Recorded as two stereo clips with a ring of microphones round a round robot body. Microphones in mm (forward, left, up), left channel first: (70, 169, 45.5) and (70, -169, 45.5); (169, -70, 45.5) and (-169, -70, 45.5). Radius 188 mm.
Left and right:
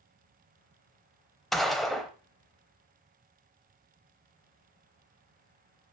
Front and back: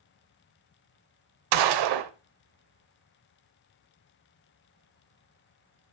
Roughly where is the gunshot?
Behind.